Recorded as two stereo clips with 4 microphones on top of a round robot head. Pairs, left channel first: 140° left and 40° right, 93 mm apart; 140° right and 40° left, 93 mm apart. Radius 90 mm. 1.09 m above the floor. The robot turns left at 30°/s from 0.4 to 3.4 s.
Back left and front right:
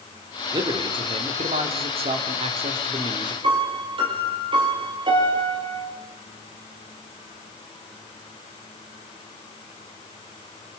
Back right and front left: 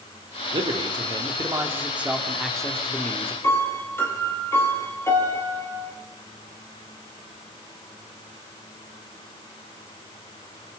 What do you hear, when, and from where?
0.5 s a man speaking: 5° left, 3 m; by 3.3 s 80° right, 3 m
3.4 s a piano: 75° right, 5 m